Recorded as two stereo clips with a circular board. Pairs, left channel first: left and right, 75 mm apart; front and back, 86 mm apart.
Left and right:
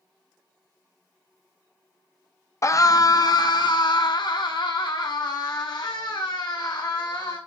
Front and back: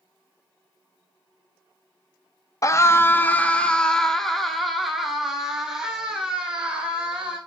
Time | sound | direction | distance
2.6 | a scream | 45° left | 0.7 m